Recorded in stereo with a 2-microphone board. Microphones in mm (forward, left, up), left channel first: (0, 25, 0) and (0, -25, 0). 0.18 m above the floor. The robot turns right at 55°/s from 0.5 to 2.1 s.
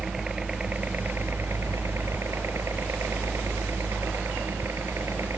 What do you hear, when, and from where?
0.0 s a helicopter: 160° right; by 5.4 s 75° right